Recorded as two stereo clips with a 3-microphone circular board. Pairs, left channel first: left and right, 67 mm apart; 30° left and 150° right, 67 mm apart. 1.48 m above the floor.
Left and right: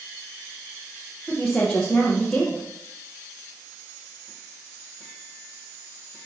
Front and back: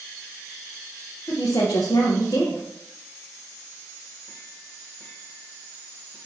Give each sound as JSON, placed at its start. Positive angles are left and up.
{"t": 1.3, "sound": "a woman speaking", "azimuth_deg": 15, "distance_m": 1.2}